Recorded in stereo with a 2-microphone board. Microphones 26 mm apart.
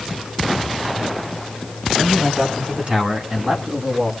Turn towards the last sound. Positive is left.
turn(degrees=-45)  # may be behind; listen again after turning